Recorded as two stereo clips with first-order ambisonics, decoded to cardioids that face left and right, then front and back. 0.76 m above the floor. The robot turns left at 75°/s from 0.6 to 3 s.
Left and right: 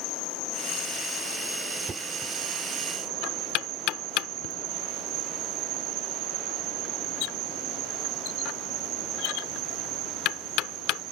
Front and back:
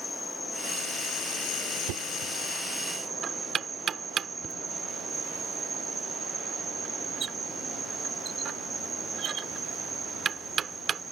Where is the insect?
75° left; by 11.1 s 105° right.